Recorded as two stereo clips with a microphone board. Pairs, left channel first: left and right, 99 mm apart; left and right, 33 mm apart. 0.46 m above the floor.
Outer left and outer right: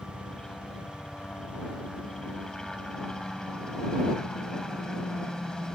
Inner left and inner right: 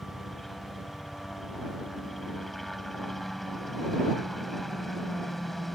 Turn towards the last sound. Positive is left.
turn(degrees=5)  # may be behind; listen again after turning